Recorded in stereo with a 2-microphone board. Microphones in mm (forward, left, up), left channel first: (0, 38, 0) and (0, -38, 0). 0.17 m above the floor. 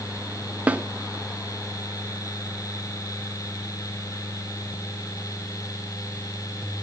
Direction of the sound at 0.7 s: 20° right (ahead or behind).